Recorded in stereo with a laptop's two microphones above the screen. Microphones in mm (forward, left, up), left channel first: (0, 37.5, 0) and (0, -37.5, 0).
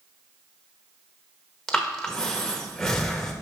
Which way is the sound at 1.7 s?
5° left (ahead or behind).